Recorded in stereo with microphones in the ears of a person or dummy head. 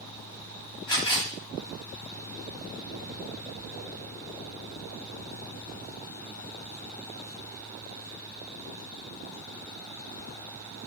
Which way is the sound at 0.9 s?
25° left (ahead or behind).